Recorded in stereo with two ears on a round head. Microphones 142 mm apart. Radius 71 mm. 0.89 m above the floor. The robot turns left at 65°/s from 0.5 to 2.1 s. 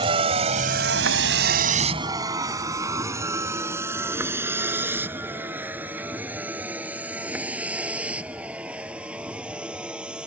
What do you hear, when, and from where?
0.0 s a vehicle: 30° right (ahead or behind); by 10.3 s 5° right (ahead or behind)